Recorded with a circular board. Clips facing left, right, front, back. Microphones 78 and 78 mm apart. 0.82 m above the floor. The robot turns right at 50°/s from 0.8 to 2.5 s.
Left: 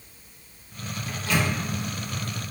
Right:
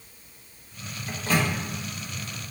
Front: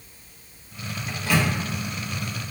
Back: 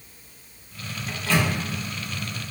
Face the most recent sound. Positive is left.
turn(degrees=-15)